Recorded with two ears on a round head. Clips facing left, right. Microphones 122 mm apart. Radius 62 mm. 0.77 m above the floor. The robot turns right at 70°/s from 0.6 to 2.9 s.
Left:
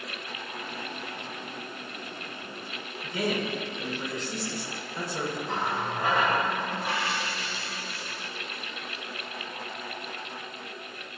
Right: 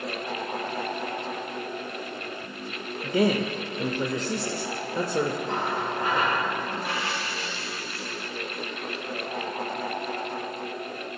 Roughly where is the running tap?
Left.